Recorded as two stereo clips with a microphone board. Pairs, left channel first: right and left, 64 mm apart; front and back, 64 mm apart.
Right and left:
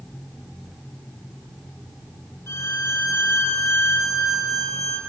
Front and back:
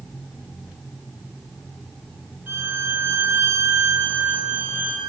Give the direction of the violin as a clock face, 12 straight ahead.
4 o'clock.